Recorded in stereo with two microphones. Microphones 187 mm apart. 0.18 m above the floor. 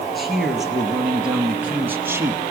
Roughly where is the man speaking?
Centre.